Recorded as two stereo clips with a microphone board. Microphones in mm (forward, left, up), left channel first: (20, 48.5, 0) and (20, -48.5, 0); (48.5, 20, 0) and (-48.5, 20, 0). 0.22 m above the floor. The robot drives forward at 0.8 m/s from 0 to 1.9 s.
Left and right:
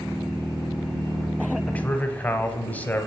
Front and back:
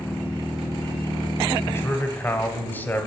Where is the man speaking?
25° left, 1.1 m; by 3.1 s 40° left, 1.0 m.